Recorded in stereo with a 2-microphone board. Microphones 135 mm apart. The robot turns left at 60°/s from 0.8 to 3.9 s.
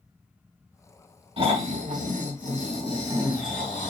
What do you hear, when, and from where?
1.4 s snoring: 50° right, 2.5 m; by 3.9 s 160° left, 2.5 m